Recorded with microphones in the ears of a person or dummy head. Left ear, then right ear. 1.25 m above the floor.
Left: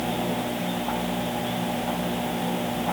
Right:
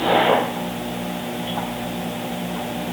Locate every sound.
Only background noise.